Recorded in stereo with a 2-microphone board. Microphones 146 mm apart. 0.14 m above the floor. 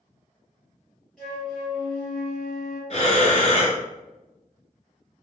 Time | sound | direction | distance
1.2 | a flute | centre (ahead or behind) | 1.7 m
2.9 | breathing | 50° left (ahead or behind) | 0.7 m